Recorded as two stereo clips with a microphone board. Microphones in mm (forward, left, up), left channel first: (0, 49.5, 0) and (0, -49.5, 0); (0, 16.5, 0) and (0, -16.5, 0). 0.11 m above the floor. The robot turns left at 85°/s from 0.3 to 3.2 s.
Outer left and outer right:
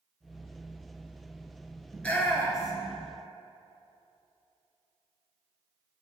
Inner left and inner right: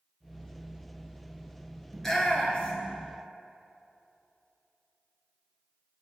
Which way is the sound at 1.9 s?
5° left (ahead or behind).